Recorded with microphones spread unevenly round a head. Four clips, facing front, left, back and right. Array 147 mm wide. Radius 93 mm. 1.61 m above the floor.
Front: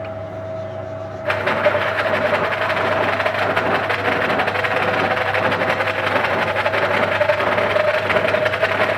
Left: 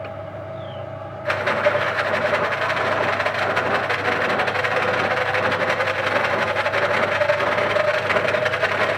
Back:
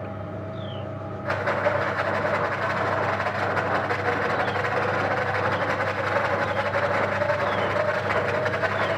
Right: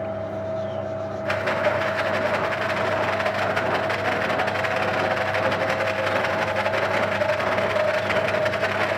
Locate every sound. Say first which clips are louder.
0.0 s a fan: right 4 dB, front 6 dB; 75° right, 3 m
1.2 s a rattle: left 3 dB, front 6 dB; 5° right, 1.3 m